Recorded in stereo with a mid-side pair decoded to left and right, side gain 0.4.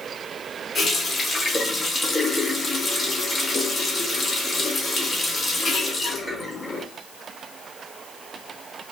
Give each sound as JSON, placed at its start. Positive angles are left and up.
{"t": 0.8, "sound": "a running tap", "azimuth_deg": 40, "distance_m": 1.7}